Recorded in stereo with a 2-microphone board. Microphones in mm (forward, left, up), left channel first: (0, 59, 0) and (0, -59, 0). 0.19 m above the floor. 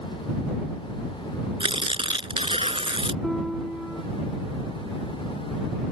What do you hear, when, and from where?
1.6 s tearing paper: 50° right (ahead or behind)
3.2 s a piano: 5° right (ahead or behind)